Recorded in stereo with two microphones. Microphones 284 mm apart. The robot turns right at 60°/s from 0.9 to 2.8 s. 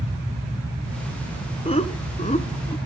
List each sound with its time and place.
1.6 s laughter: 20° left (ahead or behind), 1.1 m